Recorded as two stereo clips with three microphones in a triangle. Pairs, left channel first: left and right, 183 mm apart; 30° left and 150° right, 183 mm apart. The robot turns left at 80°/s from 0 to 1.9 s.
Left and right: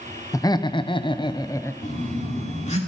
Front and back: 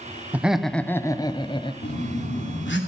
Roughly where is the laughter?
Behind left.